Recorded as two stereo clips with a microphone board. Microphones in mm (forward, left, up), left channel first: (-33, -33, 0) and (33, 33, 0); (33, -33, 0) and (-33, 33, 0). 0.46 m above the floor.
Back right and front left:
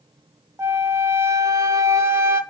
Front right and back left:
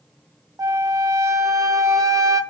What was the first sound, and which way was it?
A flute, 95° left.